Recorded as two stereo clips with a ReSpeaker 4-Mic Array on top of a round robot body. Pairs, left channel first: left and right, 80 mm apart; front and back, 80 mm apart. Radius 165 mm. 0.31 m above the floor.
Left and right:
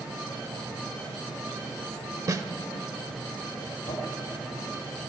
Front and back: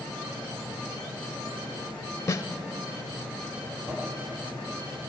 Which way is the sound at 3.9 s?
115° left.